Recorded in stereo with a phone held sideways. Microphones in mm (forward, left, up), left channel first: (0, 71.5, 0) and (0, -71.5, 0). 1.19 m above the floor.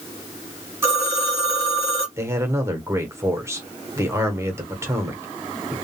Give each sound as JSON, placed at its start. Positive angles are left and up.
{"t": 0.8, "sound": "a phone ringing", "side_deg": -20, "distance_m": 1.7}
{"t": 2.2, "sound": "a man speaking", "side_deg": -20, "distance_m": 1.0}